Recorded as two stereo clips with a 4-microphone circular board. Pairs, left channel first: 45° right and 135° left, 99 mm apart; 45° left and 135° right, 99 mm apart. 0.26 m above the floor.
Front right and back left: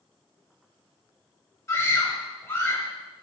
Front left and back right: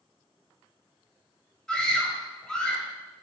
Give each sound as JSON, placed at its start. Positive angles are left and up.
{"t": 1.7, "sound": "a scream", "azimuth_deg": -25, "distance_m": 1.2}